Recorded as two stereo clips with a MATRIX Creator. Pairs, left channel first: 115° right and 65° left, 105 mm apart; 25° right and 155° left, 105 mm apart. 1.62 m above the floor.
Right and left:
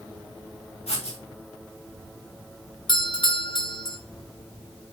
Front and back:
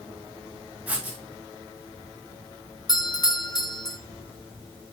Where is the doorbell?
70° right, 1.1 m.